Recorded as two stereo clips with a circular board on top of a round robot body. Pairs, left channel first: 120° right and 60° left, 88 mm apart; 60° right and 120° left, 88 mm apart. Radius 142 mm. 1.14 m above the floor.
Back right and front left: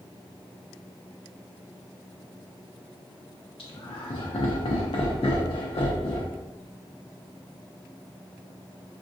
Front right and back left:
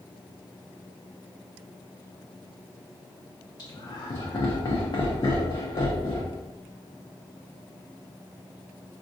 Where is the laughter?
100° right, 0.6 m.